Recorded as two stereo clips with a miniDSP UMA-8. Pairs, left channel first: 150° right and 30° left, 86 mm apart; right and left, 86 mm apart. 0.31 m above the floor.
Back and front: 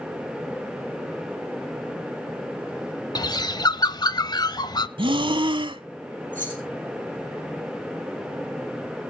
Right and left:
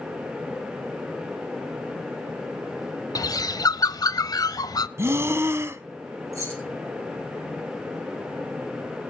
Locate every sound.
3.1 s a bird: 125° right, 0.5 m
5.0 s breathing: 30° left, 0.6 m
6.3 s keys jangling: 140° left, 5 m